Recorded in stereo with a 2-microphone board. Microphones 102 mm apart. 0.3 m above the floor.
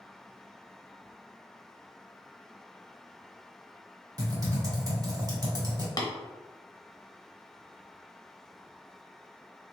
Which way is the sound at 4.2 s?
35° right (ahead or behind).